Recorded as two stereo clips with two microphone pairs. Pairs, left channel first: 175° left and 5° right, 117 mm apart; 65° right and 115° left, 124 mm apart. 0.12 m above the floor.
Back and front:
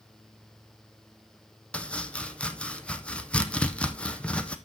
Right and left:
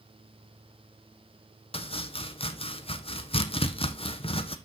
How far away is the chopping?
About 0.9 m.